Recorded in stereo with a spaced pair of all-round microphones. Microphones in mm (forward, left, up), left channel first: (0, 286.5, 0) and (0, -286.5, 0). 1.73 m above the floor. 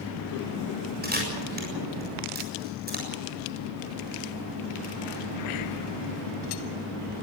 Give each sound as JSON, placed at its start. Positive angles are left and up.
{"t": 1.0, "sound": "a camera shutter", "side_deg": -15, "distance_m": 7.0}